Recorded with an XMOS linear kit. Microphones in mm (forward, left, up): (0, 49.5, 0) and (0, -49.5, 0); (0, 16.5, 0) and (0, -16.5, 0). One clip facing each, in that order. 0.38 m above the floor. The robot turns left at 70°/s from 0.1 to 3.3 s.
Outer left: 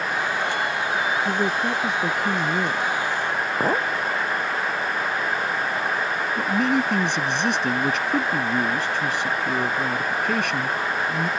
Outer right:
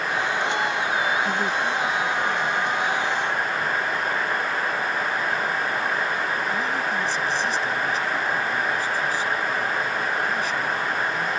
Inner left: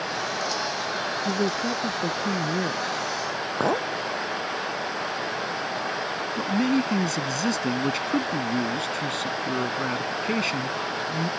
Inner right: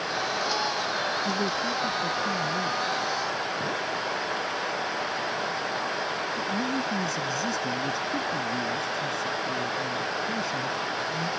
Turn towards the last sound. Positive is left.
turn(degrees=70)  # may be behind; listen again after turning